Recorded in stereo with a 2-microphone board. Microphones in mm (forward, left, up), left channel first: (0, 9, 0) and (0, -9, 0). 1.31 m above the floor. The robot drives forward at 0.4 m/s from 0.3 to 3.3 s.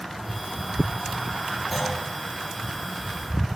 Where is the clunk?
5° left (ahead or behind), 3 m.